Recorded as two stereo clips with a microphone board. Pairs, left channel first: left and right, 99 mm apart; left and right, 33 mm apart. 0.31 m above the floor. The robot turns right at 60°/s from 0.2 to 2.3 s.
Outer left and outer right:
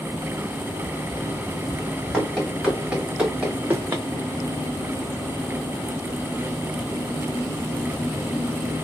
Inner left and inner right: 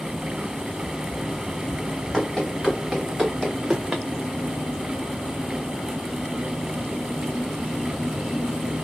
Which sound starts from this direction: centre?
Running footsteps, at 2.1 s.